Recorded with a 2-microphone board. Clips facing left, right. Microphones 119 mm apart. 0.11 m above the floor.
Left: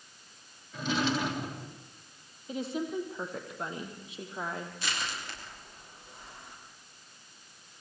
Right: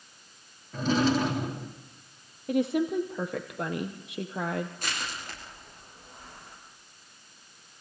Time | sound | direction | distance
0.7 | a drawer | 40° right (ahead or behind) | 3 m
2.5 | a woman speaking | 70° right (ahead or behind) | 3 m
4.8 | crushing | 45° right (ahead or behind) | 9.5 m